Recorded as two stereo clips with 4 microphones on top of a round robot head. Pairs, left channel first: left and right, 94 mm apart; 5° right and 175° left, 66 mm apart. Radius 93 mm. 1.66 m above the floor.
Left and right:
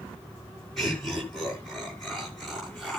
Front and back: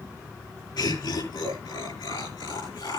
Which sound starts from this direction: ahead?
Laughter, at 0.8 s.